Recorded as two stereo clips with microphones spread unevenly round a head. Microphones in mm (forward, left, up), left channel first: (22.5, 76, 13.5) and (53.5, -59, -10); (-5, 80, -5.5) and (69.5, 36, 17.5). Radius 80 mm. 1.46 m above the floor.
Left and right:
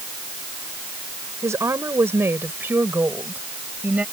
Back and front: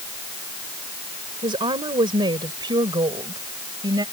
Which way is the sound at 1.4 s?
5° right.